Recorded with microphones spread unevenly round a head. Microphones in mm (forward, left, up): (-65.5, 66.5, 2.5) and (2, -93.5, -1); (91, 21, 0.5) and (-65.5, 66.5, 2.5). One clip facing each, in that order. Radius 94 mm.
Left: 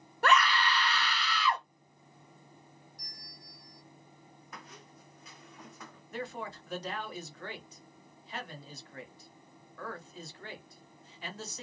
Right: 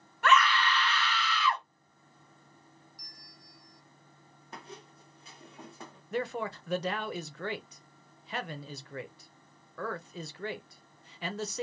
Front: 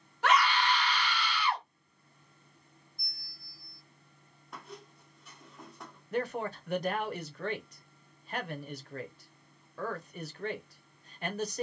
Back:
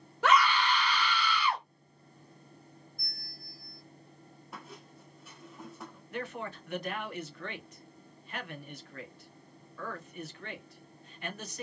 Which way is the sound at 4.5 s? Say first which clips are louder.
Right 5 dB, front 1 dB; 110° right.